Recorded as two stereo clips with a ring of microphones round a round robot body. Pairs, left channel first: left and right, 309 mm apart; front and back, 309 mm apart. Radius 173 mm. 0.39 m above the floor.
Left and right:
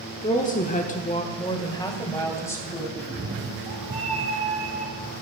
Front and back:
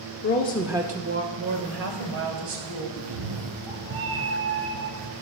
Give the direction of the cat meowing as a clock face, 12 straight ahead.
5 o'clock.